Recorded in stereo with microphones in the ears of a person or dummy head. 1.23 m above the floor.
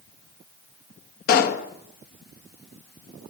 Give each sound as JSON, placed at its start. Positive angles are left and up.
{"t": 1.3, "sound": "a pop", "side_deg": 55, "distance_m": 1.6}